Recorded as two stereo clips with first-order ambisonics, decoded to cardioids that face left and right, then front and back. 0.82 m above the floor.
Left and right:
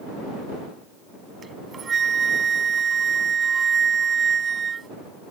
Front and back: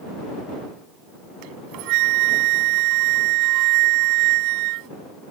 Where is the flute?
160° right.